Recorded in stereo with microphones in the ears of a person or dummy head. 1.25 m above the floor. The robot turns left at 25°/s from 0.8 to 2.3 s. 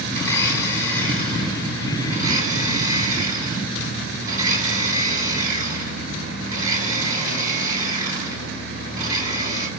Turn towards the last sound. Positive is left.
turn(degrees=-20)